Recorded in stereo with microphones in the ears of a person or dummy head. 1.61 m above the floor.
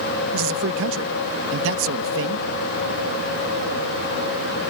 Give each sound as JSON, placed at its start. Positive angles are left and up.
{"t": 0.3, "sound": "a man speaking", "side_deg": -75}